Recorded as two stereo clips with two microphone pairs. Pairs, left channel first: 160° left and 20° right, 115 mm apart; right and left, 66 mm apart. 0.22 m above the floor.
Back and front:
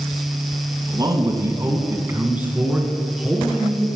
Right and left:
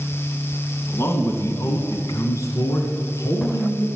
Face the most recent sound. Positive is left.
turn(degrees=-110)